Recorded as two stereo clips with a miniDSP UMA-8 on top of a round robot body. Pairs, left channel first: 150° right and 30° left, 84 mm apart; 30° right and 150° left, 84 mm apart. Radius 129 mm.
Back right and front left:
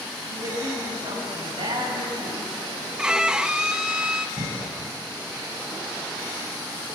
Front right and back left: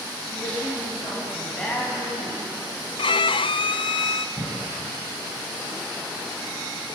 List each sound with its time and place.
0.3 s a man speaking: 60° left, 8.5 m; by 2.9 s 40° left, 8 m
3.0 s a violin: 50° right, 0.6 m
4.4 s a cough: 75° left, 7.5 m